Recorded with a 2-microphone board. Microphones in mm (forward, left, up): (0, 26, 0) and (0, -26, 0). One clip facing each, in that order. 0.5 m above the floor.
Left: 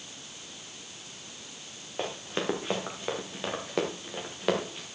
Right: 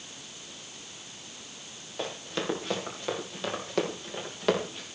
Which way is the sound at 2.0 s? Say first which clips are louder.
Left 1 dB; 25° left (ahead or behind).